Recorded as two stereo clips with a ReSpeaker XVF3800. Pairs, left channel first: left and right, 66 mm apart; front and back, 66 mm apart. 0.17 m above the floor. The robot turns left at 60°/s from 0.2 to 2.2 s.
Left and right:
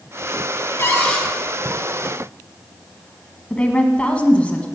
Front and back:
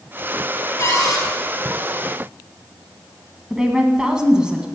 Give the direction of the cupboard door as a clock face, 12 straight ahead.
11 o'clock.